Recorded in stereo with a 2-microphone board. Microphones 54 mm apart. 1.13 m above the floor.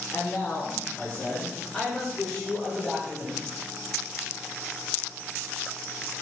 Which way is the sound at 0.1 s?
45° left (ahead or behind).